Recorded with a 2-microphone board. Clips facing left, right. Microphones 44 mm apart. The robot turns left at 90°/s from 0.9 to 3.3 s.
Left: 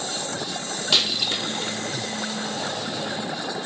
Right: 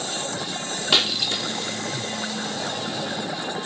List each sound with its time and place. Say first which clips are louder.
0.9 s breaking glass: right 1 dB; 20° right (ahead or behind), 1.4 m; by 1.7 s 50° left (ahead or behind), 1.4 m